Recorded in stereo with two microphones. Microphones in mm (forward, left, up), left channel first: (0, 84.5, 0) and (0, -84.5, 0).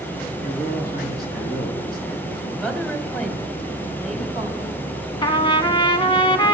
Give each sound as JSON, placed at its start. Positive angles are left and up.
{"t": 0.4, "sound": "a man speaking", "side_deg": 70, "distance_m": 3.5}
{"t": 2.6, "sound": "a woman speaking", "side_deg": 5, "distance_m": 2.0}
{"t": 5.2, "sound": "a trumpet", "side_deg": 30, "distance_m": 0.9}